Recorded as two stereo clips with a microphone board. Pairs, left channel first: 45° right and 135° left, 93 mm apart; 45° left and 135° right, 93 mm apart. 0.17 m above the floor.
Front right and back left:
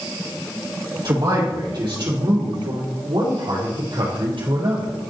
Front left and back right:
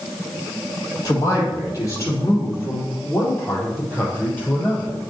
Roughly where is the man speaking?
Left.